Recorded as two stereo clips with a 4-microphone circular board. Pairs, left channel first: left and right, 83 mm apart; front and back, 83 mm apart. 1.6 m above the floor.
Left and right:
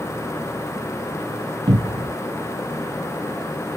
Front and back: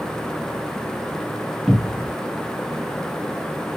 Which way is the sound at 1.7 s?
85° right.